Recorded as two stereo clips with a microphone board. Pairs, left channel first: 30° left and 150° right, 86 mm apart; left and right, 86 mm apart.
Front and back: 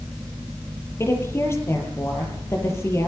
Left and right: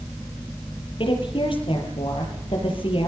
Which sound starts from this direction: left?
A woman speaking, at 1.0 s.